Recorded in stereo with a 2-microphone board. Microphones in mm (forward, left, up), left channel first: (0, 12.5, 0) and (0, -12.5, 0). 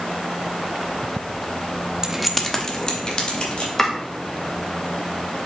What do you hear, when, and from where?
2.0 s keys jangling: 30° right (ahead or behind), 0.6 m; by 3.7 s 40° left (ahead or behind), 2.5 m
3.8 s chopping: 20° left (ahead or behind), 1.5 m